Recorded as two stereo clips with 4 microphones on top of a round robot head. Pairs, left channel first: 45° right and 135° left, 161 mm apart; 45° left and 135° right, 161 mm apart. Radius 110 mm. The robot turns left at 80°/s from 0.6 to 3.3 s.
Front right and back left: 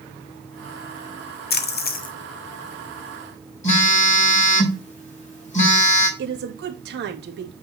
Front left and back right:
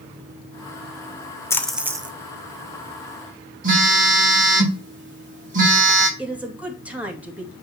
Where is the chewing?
No chewing in this recording.